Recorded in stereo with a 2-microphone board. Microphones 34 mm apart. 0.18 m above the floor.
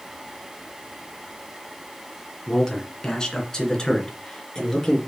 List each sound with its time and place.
2.5 s a man speaking: 20° left (ahead or behind), 2 m